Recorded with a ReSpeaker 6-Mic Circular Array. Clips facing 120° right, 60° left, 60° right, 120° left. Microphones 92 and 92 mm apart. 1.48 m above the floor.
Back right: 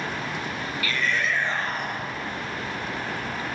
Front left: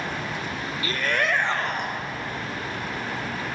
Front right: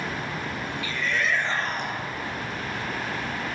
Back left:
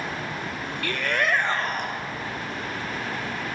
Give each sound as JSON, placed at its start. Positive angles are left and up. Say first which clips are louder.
{"t": 0.8, "sound": "a shout", "louder": "front left 2 dB, back left 3 dB", "azimuth_deg": 115, "distance_m": 0.5}